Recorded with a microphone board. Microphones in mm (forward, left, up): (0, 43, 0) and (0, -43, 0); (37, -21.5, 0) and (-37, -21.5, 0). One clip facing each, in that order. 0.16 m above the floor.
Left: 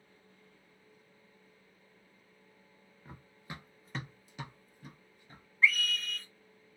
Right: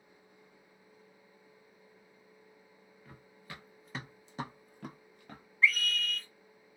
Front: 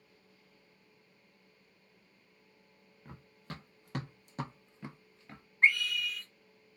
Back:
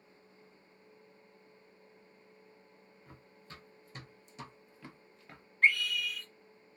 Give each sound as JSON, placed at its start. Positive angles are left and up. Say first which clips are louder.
{"t": 3.0, "sound": "running footsteps", "louder": "left 3 dB, front 7 dB", "azimuth_deg": 30, "distance_m": 1.1}
{"t": 5.6, "sound": "a scream", "louder": "even, front 1 dB", "azimuth_deg": 0, "distance_m": 1.3}